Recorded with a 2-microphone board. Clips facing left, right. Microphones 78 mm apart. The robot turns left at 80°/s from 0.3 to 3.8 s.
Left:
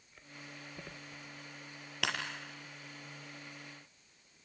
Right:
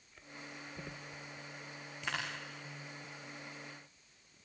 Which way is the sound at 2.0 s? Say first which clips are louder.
Left 3 dB; 65° left (ahead or behind).